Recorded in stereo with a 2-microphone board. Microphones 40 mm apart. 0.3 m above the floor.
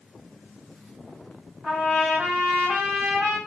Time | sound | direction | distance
1.6 | a trumpet | 10° right (ahead or behind) | 1.9 m